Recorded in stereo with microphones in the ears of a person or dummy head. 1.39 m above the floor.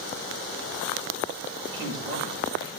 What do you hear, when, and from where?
1.7 s a man speaking: 30° right (ahead or behind), 8 m